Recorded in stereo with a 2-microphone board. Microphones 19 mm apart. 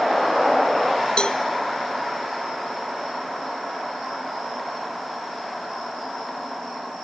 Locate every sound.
1.2 s a cowbell: 50° left (ahead or behind), 0.9 m